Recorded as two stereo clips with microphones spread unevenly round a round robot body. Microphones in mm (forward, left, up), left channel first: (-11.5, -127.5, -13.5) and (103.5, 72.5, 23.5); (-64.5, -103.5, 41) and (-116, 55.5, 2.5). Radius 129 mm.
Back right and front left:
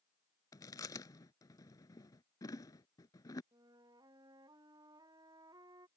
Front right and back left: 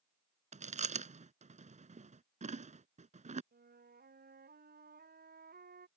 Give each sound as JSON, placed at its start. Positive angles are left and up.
{"t": 0.5, "sound": "chewing", "azimuth_deg": 160}
{"t": 3.5, "sound": "a flute", "azimuth_deg": 135}